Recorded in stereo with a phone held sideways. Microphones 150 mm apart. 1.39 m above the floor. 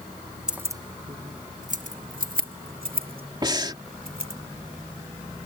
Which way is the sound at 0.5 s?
5° right (ahead or behind).